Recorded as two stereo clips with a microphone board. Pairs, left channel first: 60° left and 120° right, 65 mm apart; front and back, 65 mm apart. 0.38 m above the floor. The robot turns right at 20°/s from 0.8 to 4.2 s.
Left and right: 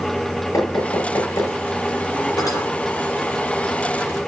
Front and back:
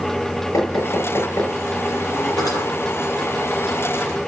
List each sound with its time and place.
0.5 s knocking: 30° left, 5.5 m; by 1.6 s 45° left, 5.5 m
2.4 s cutlery clinking: 25° left, 6.5 m; by 2.6 s 30° left, 6.5 m